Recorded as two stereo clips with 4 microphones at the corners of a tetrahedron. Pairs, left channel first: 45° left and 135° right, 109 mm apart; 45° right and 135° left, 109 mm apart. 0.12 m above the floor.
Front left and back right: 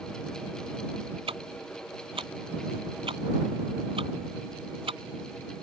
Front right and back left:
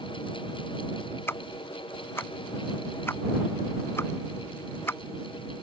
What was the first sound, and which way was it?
Ticking, 110° right.